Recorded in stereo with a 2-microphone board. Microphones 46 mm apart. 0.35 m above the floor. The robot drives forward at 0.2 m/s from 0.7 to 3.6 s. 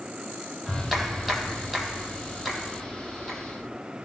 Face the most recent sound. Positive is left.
turn(degrees=-5)  # may be behind; listen again after turning